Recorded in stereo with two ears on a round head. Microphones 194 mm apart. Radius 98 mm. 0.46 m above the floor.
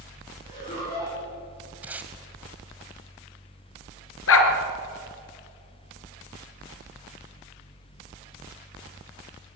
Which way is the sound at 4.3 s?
70° left (ahead or behind).